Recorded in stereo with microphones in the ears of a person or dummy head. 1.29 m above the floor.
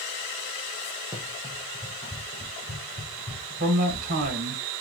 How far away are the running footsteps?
About 1.5 m.